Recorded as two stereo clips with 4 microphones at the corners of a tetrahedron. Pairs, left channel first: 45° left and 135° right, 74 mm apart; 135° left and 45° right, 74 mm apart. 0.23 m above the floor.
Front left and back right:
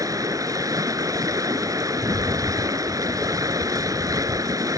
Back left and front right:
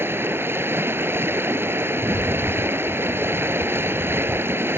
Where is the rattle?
165° left.